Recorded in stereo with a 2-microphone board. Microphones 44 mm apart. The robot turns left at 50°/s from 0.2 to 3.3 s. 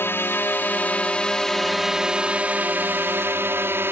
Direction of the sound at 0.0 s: 80° left.